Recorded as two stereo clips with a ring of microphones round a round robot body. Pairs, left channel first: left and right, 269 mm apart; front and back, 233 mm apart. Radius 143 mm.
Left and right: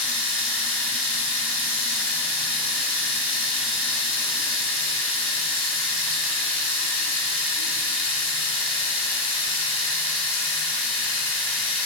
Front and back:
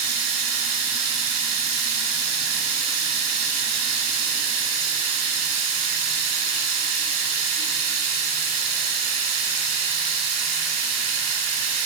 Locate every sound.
0.0 s running water: 175° left, 1.6 m